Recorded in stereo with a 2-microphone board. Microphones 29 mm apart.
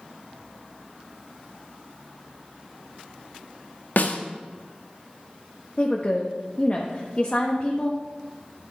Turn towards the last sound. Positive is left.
turn(degrees=35)  # may be behind; listen again after turning